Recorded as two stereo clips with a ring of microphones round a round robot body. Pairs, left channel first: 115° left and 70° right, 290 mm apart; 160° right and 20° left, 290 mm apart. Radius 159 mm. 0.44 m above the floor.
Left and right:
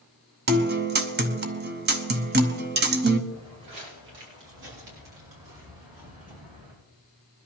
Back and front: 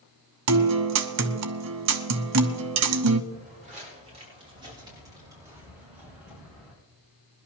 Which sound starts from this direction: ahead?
A guitar, at 0.5 s.